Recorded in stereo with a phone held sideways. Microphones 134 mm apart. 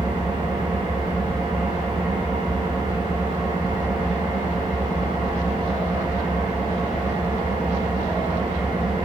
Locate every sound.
0.0 s an engine running: 40° right (ahead or behind), 3.5 m